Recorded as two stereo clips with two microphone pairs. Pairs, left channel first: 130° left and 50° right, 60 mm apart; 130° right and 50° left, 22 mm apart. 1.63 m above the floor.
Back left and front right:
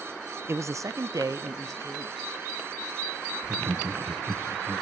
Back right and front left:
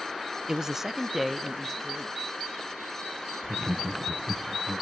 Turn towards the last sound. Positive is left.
turn(degrees=-10)